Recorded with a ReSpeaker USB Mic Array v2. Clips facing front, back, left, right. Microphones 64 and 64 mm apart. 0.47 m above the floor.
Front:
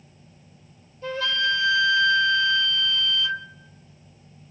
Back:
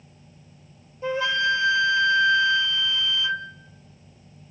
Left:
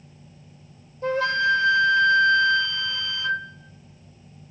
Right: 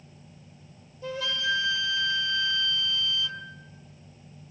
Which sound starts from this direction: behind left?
A flute, at 1.0 s.